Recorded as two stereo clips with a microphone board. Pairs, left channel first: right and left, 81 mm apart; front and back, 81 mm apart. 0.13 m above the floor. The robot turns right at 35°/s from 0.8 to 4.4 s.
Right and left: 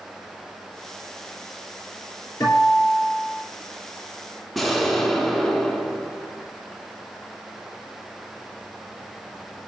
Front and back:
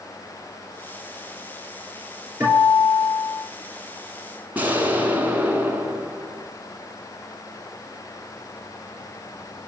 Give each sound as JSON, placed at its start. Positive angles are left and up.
{"t": 2.4, "sound": "a guitar", "azimuth_deg": -125, "distance_m": 3.0}
{"t": 4.5, "sound": "an explosion", "azimuth_deg": -175, "distance_m": 0.8}